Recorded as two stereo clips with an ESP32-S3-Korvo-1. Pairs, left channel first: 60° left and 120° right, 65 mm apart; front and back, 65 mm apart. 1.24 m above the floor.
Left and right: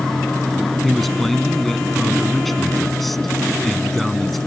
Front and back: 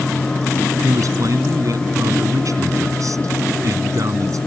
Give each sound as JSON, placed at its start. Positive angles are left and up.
{"t": 0.8, "sound": "a man speaking", "azimuth_deg": 150}